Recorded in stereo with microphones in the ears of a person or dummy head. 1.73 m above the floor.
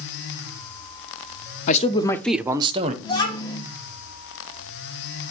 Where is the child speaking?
20° left (ahead or behind), 1.9 m.